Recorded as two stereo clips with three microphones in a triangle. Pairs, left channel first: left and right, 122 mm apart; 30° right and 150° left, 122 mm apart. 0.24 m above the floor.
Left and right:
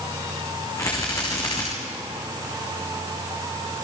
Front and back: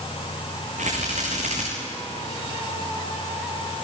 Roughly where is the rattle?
Behind left.